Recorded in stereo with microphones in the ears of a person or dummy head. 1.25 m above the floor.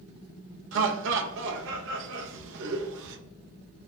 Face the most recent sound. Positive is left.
turn(degrees=-70)  # may be behind; listen again after turning